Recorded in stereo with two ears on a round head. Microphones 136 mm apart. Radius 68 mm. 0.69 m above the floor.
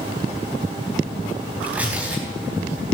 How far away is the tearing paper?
About 4.5 m.